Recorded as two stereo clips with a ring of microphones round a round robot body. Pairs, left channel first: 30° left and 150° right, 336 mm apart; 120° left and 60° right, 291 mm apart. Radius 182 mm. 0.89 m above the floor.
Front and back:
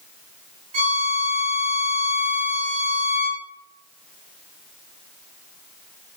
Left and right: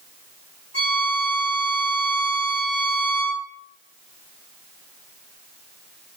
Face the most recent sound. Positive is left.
turn(degrees=-135)